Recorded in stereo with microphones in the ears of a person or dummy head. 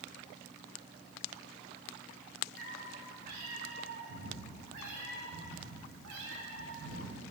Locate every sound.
2.6 s a cat meowing: 50° right (ahead or behind), 4 m; by 7.2 s 75° right (ahead or behind), 3 m